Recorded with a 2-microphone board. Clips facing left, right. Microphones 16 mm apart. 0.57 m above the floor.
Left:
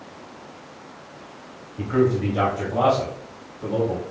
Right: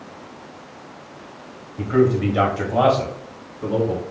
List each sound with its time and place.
1.8 s a man speaking: 5° left (ahead or behind), 0.8 m; by 4.0 s 60° right (ahead or behind), 2 m